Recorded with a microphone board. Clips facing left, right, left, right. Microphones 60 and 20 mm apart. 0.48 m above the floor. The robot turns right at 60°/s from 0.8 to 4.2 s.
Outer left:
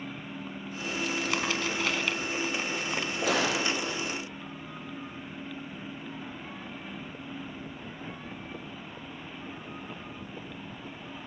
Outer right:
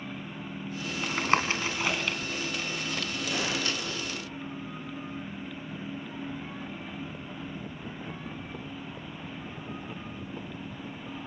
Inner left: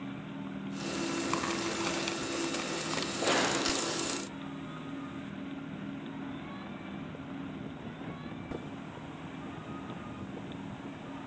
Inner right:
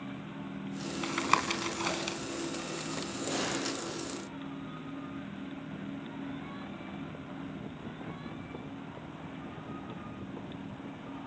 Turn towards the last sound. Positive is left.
turn(degrees=155)